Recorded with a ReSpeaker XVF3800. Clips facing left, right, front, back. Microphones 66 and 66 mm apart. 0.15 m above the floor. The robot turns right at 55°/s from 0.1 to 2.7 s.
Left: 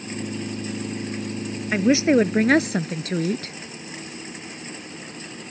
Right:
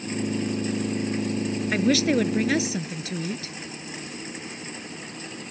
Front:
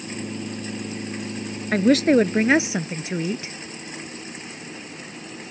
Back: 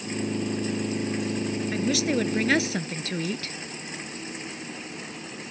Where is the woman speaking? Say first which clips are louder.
Left 5 dB, front 11 dB; 15° left; by 3.5 s 70° left.